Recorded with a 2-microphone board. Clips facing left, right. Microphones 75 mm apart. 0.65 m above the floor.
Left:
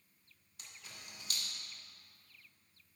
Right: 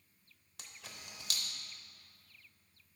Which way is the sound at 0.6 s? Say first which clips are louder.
Right 2 dB; 80° right.